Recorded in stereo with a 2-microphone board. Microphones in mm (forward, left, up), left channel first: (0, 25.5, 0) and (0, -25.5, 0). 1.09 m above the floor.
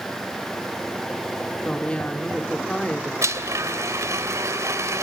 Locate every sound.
1.6 s a woman speaking: 20° left (ahead or behind), 2.5 m
3.2 s a blender: 70° right (ahead or behind), 2.5 m